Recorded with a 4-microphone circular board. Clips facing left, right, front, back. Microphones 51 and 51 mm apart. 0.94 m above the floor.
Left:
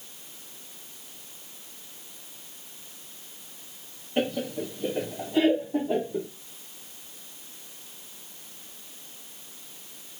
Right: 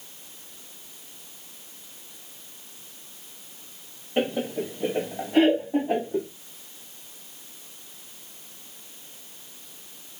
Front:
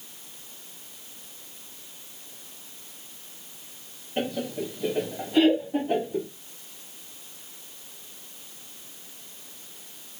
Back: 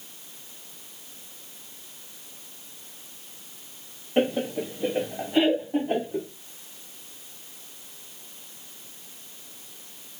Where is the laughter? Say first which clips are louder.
Right 2 dB, back 5 dB; 155° right, 0.5 m; by 6.3 s 110° right, 2.5 m.